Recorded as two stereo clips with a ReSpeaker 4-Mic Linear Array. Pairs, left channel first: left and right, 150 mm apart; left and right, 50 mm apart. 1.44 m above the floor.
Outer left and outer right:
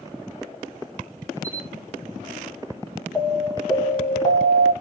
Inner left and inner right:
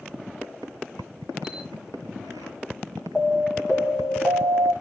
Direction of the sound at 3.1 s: 25° left (ahead or behind).